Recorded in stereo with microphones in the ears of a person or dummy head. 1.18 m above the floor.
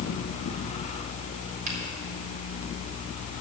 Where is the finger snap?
45° right (ahead or behind), 4 m.